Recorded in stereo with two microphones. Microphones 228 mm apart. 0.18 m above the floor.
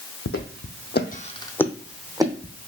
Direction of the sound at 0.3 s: 80° left.